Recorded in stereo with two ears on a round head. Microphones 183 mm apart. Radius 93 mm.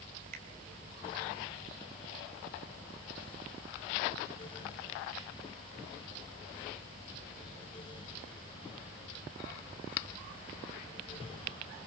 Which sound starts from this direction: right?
A finger snap, at 0.3 s.